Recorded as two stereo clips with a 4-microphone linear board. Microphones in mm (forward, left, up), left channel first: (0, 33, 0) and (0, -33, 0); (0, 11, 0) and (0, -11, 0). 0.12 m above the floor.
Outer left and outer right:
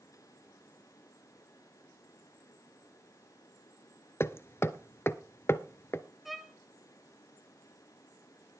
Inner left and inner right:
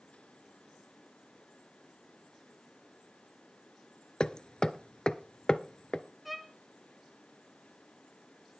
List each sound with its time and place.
4.2 s hammering: 40° left (ahead or behind), 0.5 m
6.2 s a violin: centre (ahead or behind), 0.7 m